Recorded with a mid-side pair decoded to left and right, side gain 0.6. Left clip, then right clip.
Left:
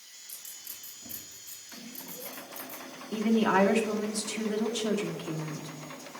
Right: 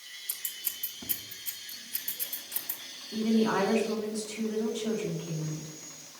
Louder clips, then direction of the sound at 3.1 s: Left 2 dB; 50° left.